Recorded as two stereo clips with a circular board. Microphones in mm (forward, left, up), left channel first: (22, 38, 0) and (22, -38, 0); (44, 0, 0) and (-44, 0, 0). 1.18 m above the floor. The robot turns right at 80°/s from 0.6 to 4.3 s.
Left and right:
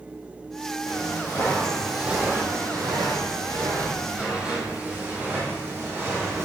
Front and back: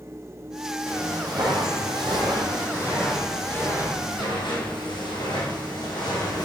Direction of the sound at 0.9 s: 115° left.